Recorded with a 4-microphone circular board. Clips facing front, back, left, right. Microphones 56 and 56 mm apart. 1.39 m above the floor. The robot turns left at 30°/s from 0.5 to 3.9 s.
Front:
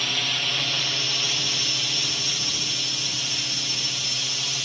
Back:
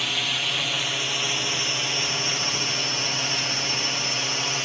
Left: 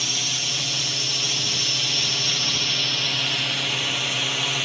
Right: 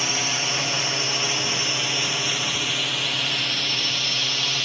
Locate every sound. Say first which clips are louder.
0.0 s a drone: even, right 4 dB; 95° right; by 4.7 s 160° left